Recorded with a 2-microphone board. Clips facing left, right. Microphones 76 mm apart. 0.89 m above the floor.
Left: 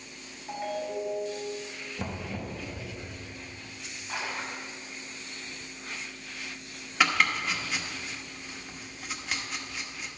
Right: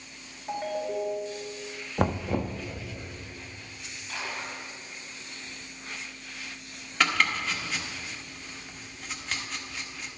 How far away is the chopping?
About 1.1 m.